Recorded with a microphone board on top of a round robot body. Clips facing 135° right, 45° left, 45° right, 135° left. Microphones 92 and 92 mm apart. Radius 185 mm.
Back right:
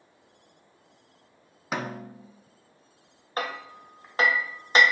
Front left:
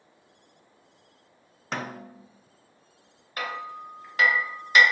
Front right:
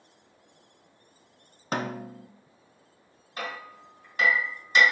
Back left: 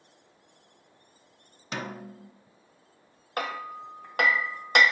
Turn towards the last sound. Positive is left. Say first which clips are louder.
# back right 1 dB, back left 5 dB
turn(degrees=165)